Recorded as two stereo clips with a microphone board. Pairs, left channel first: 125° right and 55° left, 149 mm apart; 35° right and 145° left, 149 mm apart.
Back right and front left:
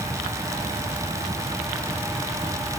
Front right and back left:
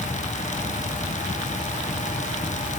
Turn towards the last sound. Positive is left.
No sound to turn to.